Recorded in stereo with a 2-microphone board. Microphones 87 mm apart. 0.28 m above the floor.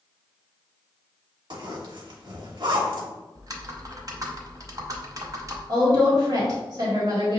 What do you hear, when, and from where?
1.5 s a zipper: 60° right (ahead or behind), 1.1 m
3.4 s typing on a keyboard: 45° right (ahead or behind), 0.6 m
5.7 s a woman speaking: 45° right (ahead or behind), 1.5 m